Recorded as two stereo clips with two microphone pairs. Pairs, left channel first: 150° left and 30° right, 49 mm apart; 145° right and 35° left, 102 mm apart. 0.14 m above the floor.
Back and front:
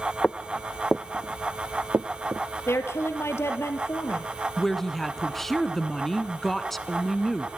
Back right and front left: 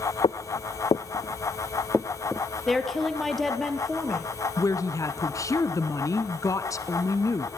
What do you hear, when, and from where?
0.2 s footsteps: 150° right, 0.6 m; by 2.5 s 45° right, 0.8 m
2.7 s a woman speaking: 130° left, 2.5 m
4.6 s a woman speaking: 130° right, 1.2 m